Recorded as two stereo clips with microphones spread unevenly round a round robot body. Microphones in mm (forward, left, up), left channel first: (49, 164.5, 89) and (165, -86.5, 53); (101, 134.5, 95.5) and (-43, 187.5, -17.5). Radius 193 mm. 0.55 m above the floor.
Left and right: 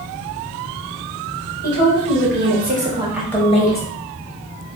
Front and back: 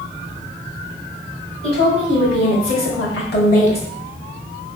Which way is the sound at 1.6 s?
50° right.